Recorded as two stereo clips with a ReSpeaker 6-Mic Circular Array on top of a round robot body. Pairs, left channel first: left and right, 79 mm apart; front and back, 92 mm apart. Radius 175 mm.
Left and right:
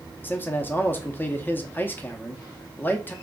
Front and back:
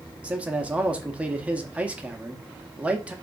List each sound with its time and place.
0.2 s a man speaking: 120° left, 0.8 m